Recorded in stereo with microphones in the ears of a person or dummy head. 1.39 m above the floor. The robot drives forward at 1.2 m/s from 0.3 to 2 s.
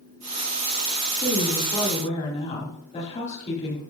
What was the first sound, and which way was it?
A woman speaking, 25° left (ahead or behind).